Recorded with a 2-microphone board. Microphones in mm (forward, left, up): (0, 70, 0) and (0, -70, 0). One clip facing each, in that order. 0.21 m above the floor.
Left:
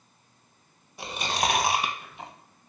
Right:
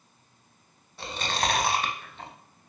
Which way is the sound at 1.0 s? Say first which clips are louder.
Left 1 dB; 15° left (ahead or behind).